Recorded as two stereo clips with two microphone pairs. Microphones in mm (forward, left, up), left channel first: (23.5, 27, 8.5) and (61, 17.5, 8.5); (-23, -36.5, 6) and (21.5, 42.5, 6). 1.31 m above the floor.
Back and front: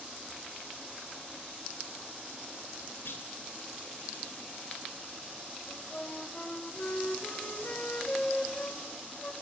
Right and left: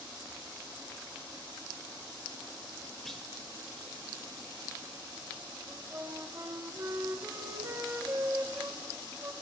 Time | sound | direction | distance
3.0 | a clunk | 155° left | 3 m
5.7 | a flute | 115° left | 2 m